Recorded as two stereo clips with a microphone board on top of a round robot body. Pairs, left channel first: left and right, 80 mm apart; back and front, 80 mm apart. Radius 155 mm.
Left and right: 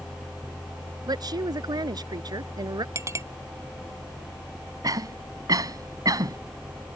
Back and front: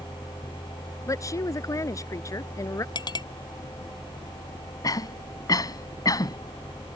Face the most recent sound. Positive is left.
turn(degrees=-135)